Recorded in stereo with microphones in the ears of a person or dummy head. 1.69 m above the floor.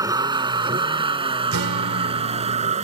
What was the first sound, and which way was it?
A vehicle, 25° right (ahead or behind).